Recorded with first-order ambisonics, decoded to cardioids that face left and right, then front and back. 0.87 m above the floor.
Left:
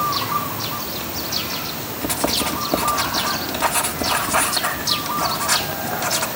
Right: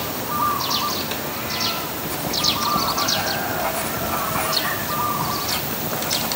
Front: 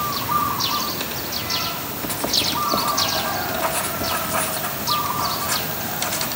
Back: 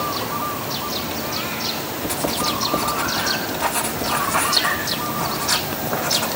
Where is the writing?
90° left, 2.5 m.